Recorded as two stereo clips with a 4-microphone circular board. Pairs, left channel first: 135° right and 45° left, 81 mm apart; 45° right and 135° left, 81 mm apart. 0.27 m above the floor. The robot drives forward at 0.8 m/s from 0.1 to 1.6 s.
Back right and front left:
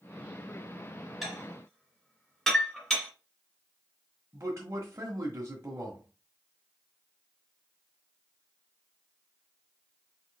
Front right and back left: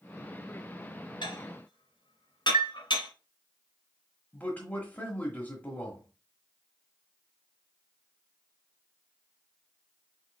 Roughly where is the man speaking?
Ahead.